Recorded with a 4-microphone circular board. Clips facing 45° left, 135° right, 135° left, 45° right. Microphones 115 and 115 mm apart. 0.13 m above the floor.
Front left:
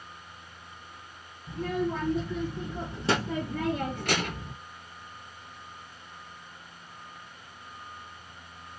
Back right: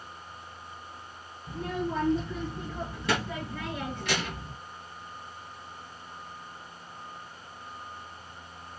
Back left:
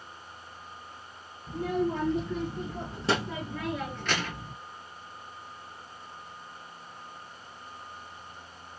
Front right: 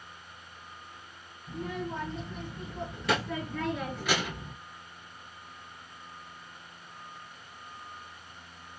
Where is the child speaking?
140° left, 1.5 m; by 4.5 s 20° left, 1.2 m.